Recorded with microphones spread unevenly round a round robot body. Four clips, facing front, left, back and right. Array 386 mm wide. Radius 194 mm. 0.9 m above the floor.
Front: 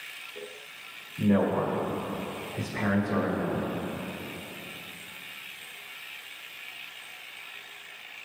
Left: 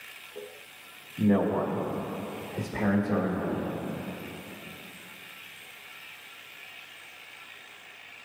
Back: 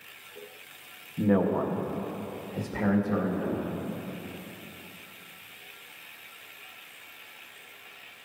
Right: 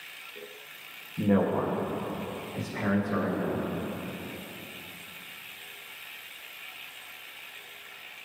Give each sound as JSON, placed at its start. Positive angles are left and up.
{"t": 1.2, "sound": "a man speaking", "azimuth_deg": -150, "distance_m": 1.5}